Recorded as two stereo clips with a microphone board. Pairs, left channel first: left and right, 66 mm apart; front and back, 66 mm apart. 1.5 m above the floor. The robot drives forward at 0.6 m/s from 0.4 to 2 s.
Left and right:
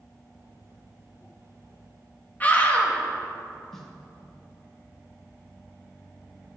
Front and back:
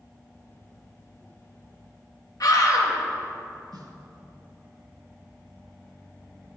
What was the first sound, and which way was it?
A scream, 25° left.